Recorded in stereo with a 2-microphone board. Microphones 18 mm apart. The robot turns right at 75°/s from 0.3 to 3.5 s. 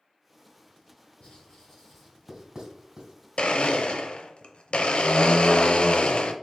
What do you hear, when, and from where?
1.2 s writing: 65° left (ahead or behind), 2 m; by 3.1 s 70° right (ahead or behind), 2 m
3.4 s a blender: 70° left (ahead or behind), 0.5 m; by 6.3 s 75° left (ahead or behind), 0.5 m